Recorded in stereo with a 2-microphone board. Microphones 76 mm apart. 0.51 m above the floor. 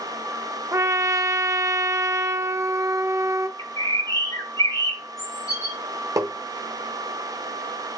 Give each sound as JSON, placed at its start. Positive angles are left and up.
{"t": 0.7, "sound": "a trumpet", "side_deg": -40, "distance_m": 0.7}
{"t": 3.6, "sound": "a bird", "side_deg": 45, "distance_m": 1.4}
{"t": 6.2, "sound": "tapping", "side_deg": -45, "distance_m": 0.9}